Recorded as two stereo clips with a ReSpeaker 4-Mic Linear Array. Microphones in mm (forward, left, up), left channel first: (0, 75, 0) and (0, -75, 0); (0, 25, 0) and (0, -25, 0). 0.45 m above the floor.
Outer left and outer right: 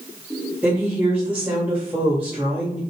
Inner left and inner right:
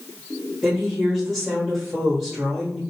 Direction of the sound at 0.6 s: 10° right (ahead or behind).